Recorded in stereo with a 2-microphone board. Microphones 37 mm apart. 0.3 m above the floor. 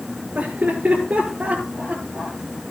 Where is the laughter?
45° right (ahead or behind), 4.5 m; by 2.4 s 30° right (ahead or behind), 6 m.